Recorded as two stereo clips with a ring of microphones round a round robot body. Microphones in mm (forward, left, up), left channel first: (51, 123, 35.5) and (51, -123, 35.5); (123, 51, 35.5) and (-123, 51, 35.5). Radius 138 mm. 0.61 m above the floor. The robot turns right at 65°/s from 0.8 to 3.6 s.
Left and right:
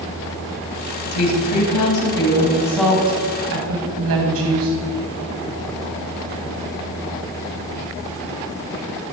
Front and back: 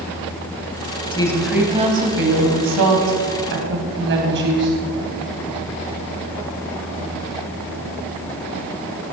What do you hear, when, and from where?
1.1 s a woman speaking: 70° left, 3.5 m; by 4.8 s 130° right, 3.5 m